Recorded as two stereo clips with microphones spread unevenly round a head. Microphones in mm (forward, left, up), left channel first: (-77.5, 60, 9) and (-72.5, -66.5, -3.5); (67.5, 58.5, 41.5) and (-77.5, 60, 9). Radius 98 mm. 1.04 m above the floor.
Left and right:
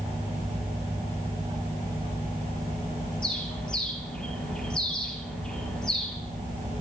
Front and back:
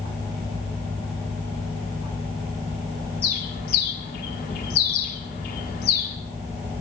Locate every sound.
3.2 s a bird: 5° left, 3 m